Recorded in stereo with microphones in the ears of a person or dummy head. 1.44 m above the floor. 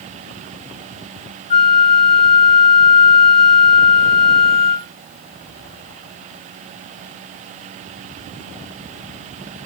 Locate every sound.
1.5 s a flute: 40° left (ahead or behind), 4 m